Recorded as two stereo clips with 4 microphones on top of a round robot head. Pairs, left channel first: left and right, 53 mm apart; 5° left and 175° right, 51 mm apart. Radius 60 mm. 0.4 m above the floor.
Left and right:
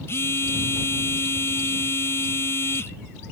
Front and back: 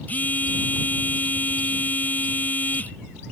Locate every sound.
0.1 s a phone buzzing: 60° left